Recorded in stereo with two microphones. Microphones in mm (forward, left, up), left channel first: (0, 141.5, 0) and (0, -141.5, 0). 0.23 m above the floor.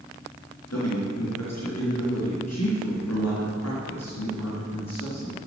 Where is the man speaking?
65° left (ahead or behind), 3.5 m.